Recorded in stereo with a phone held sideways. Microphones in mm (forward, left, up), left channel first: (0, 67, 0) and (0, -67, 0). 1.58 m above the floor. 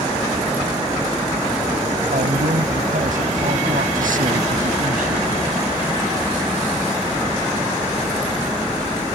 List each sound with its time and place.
2.1 s a man speaking: 80° right; by 5.4 s 85° right